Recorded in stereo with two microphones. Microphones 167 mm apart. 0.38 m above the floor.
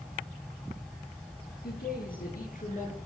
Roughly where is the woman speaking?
Left.